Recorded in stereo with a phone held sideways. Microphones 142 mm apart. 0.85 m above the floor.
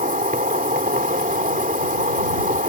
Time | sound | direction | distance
0.0 | an insect | 75° right (ahead or behind) | ?